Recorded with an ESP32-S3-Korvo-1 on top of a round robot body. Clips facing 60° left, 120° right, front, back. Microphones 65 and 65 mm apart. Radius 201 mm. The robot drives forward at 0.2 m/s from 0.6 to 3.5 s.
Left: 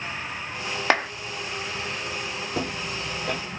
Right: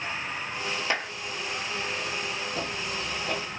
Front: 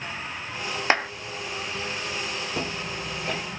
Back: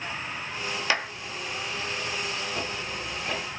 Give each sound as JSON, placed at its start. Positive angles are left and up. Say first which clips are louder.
{"t": 0.9, "sound": "a clap", "louder": "left 9 dB, front 5 dB", "azimuth_deg": 50, "distance_m": 1.2}
{"t": 2.5, "sound": "footsteps", "louder": "left 2 dB, front 2 dB", "azimuth_deg": 70, "distance_m": 1.6}